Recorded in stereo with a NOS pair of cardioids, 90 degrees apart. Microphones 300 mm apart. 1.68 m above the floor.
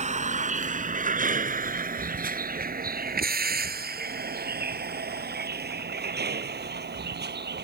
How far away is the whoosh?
No whoosh in this recording.